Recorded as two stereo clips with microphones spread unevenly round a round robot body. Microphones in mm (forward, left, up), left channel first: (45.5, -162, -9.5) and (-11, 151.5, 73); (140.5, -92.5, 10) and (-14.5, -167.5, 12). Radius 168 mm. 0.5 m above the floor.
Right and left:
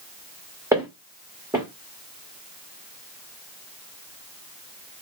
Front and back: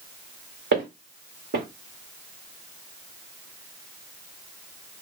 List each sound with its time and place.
0.7 s footsteps: 175° left, 1.7 m